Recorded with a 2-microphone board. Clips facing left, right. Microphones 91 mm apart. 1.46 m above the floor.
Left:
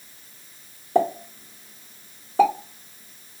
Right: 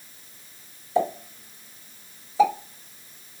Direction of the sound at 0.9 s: 60° left (ahead or behind).